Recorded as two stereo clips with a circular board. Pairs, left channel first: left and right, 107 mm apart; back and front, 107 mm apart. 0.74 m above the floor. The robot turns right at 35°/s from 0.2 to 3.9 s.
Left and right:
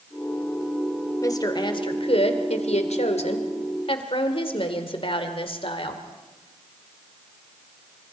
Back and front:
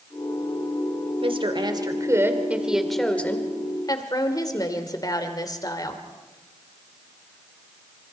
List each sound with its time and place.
1.2 s a woman speaking: 30° left, 2 m; by 6.0 s 125° left, 2 m